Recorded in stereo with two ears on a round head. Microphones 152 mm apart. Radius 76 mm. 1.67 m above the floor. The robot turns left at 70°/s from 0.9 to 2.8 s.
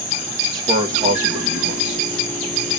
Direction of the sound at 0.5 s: 20° right.